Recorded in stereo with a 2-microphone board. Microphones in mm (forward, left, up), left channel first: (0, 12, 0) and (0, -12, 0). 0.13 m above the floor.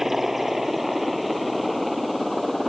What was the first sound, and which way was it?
A helicopter, 10° right (ahead or behind).